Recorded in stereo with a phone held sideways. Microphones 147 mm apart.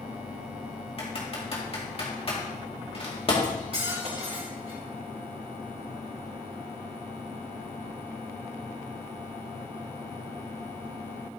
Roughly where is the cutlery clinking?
Right.